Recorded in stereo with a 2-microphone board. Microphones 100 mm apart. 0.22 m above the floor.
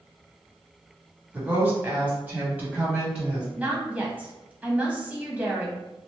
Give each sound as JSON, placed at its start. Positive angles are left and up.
{"t": 1.3, "sound": "a woman speaking", "side_deg": -20, "distance_m": 1.8}
{"t": 3.6, "sound": "a woman speaking", "side_deg": -15, "distance_m": 1.0}